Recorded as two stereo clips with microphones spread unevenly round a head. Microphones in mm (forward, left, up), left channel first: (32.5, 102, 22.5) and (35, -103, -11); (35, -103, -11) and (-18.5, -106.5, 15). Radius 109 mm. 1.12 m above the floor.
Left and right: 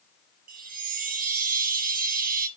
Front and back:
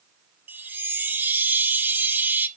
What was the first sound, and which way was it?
A chime, 145° right.